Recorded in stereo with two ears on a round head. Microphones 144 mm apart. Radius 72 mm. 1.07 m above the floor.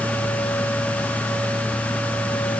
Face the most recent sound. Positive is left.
No sound to turn to.